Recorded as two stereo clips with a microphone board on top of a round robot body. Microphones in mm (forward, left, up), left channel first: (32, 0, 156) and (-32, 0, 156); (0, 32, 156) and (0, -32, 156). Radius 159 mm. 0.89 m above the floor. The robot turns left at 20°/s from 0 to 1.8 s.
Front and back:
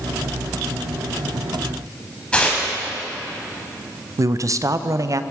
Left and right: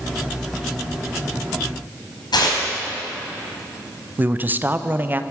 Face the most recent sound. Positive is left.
turn(degrees=-150)